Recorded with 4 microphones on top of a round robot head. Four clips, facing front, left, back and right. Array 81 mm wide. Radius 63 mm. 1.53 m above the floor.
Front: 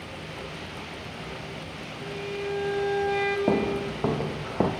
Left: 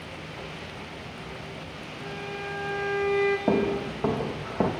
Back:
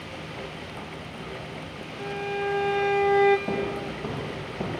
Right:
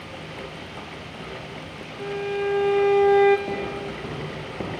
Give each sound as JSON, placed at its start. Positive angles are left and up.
{"t": 2.0, "sound": "a violin", "azimuth_deg": -125, "distance_m": 1.5}
{"t": 3.5, "sound": "footsteps", "azimuth_deg": 40, "distance_m": 2.5}